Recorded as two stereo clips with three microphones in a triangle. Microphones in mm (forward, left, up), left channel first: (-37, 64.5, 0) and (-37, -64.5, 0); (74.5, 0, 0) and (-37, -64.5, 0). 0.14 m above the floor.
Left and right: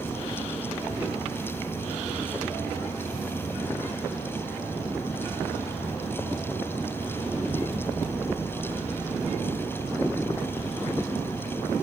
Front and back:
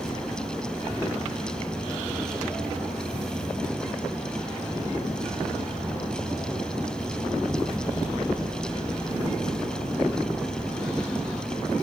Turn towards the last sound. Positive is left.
turn(degrees=150)